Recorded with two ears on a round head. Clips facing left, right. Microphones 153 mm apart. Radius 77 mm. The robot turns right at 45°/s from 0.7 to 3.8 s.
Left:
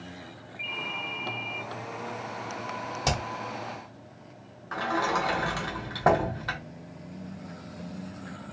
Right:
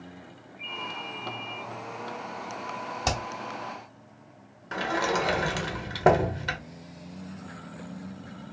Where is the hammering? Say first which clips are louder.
Even; 5° left (ahead or behind), 1.3 m; by 3.2 s 10° left (ahead or behind), 1.3 m.